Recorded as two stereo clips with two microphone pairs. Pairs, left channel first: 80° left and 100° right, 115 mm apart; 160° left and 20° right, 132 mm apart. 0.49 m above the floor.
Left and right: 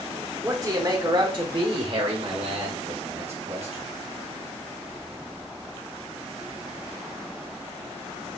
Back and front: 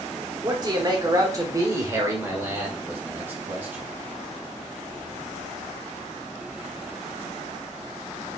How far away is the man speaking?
About 1.0 m.